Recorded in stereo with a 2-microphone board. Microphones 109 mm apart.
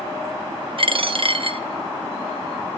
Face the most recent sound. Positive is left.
turn(degrees=-55)  # may be behind; listen again after turning